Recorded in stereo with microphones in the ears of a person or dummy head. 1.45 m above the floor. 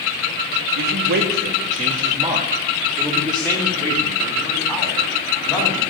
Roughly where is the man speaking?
Right.